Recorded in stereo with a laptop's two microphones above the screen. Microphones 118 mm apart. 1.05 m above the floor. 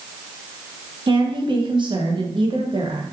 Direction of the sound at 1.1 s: 45° right (ahead or behind).